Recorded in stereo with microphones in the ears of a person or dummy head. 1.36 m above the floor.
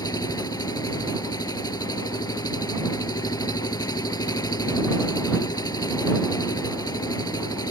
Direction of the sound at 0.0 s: 20° left (ahead or behind).